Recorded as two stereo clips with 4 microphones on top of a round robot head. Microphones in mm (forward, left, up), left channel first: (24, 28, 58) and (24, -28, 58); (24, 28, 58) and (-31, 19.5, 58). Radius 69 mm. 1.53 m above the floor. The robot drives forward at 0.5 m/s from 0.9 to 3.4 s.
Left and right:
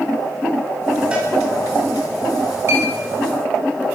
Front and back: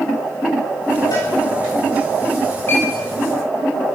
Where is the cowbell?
20° right, 10 m.